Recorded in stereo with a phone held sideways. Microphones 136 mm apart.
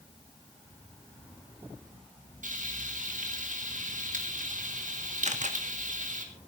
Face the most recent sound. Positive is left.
turn(degrees=-60)  # may be behind; listen again after turning